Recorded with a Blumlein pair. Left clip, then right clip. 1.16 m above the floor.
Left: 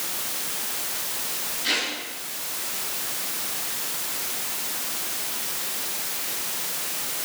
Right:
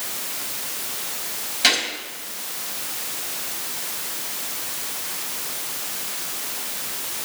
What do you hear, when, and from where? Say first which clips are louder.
1.6 s a gunshot: right 6 dB; 45° right, 5 m